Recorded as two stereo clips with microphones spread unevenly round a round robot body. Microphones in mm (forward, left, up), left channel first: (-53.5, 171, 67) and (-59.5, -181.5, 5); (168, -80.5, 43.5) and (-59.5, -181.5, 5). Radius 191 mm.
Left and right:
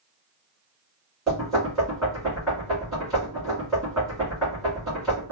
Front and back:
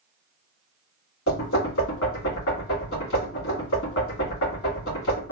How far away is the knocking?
About 2.0 m.